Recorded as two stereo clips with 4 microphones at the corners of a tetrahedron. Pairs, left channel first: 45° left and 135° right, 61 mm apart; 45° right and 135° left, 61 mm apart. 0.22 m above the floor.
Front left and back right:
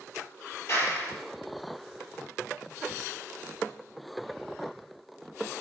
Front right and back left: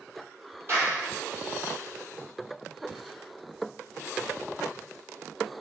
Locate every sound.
0.7 s a clap: 90° left, 6.5 m